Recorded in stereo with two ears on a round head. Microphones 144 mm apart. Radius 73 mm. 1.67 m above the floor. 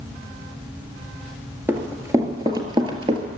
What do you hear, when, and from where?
1.7 s running footsteps: 10° right (ahead or behind), 1.8 m; by 3.2 s 35° right (ahead or behind), 2 m